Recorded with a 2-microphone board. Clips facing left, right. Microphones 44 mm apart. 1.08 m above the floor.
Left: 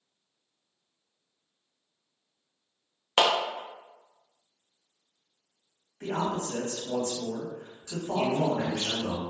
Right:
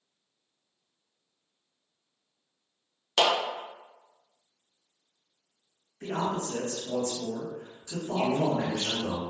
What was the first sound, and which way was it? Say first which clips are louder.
A clap: left 1 dB; 30° left (ahead or behind).